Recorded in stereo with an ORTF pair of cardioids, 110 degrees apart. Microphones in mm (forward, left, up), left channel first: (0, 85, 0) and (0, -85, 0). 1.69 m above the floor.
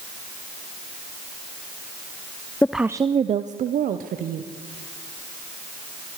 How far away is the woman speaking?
About 0.5 m.